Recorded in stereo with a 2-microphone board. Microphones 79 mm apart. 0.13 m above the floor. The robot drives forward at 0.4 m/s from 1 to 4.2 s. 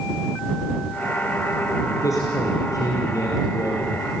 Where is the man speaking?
45° left (ahead or behind), 4 m; by 4.1 s 50° left (ahead or behind), 3.5 m.